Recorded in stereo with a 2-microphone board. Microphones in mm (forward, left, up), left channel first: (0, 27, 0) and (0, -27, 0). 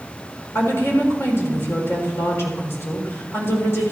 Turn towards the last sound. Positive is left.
turn(degrees=50)  # may be behind; listen again after turning